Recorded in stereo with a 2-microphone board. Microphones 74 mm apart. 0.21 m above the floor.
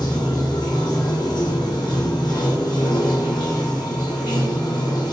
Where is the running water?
85° left, 1.1 m.